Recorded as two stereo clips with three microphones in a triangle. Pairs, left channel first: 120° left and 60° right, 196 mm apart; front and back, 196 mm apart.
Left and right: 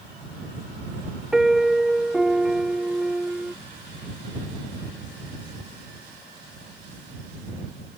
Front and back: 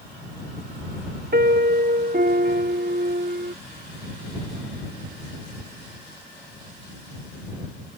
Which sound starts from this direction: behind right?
A piano, at 1.3 s.